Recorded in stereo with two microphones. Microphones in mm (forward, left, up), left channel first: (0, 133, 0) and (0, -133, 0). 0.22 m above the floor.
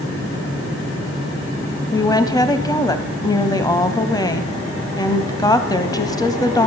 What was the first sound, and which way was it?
A woman speaking, 15° left (ahead or behind).